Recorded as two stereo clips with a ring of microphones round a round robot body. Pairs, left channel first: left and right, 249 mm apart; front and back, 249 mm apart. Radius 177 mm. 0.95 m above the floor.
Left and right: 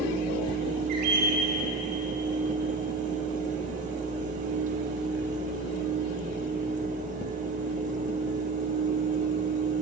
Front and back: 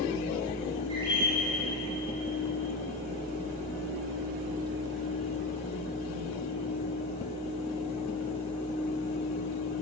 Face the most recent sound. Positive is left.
turn(degrees=-100)